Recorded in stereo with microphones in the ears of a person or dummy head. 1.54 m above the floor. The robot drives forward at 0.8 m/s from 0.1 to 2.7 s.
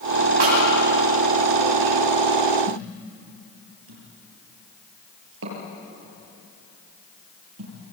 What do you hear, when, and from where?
0.4 s a snare drum: 70° right (ahead or behind), 9 m
2.7 s a thud: 80° right, 8.5 m